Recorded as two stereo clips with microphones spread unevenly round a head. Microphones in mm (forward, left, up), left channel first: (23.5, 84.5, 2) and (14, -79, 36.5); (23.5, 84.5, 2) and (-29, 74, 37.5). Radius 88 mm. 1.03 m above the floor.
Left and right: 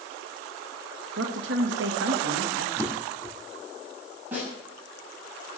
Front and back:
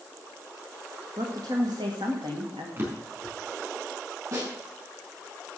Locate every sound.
1.2 s a woman speaking: 110° right, 1.8 m
2.8 s a drawer: 165° left, 4 m
4.3 s a snare drum: 175° right, 6.5 m